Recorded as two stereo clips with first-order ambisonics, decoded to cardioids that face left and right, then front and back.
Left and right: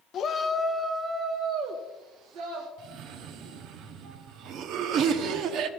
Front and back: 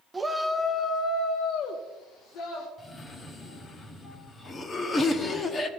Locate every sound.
0.1 s a shout: 110° left, 0.6 m; by 2.7 s 45° right, 1.6 m
2.8 s a cough: 65° right, 1.0 m